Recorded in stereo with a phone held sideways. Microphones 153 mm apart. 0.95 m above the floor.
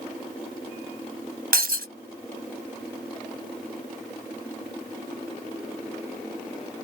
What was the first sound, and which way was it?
Breaking glass, 80° right.